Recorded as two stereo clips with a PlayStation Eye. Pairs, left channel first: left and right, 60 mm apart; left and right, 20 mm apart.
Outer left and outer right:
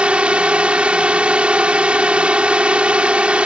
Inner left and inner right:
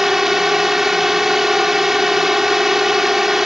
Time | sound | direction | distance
0.0 | a drone | 20° right (ahead or behind) | ?